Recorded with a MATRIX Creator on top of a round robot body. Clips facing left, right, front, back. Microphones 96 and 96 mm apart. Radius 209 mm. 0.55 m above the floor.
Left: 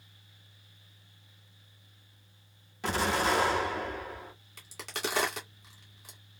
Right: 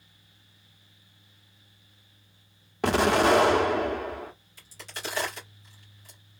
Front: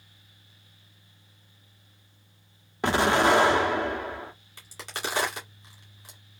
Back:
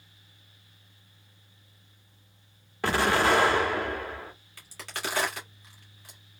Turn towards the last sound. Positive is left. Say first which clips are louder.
# left 4 dB, front 1 dB
turn(degrees=70)